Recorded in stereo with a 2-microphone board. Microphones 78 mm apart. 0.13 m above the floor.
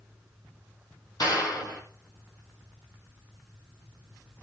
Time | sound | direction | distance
1.2 | a clap | 55° left (ahead or behind) | 4 m